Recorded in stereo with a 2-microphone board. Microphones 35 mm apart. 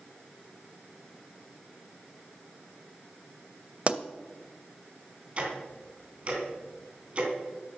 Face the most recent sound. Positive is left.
turn(degrees=-30)  # may be behind; listen again after turning